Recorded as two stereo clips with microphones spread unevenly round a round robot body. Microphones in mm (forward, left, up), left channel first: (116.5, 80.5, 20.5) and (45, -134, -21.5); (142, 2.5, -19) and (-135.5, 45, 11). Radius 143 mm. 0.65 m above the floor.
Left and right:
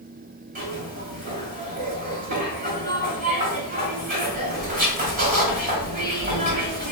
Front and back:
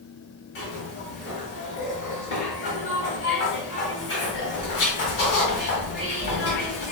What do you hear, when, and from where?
0.6 s a zipper: 55° right, 1.5 m